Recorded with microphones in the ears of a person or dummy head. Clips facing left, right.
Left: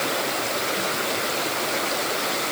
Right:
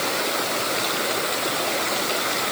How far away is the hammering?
No hammering in this recording.